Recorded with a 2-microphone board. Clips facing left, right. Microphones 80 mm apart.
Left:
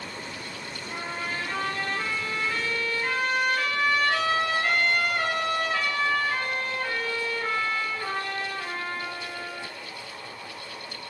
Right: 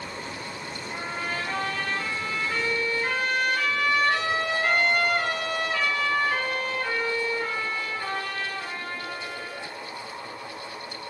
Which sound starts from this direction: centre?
A trumpet, at 0.9 s.